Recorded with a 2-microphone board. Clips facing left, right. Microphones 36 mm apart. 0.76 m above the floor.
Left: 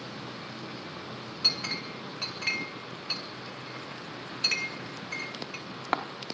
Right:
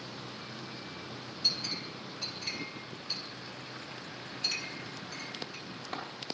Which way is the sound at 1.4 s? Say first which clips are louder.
Left 4 dB; 60° left (ahead or behind).